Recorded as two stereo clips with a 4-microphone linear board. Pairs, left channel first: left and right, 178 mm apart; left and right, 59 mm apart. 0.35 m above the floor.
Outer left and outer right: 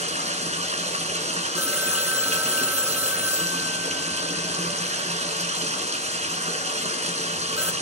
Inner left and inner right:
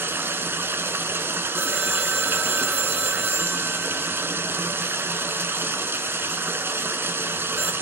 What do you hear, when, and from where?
0.0 s running water: 40° right (ahead or behind), 3.5 m
1.6 s a phone ringing: 10° right (ahead or behind), 0.7 m